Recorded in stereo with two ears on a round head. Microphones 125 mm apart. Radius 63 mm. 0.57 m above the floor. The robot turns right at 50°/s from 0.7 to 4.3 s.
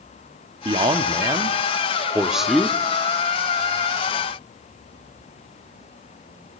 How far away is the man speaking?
About 0.6 m.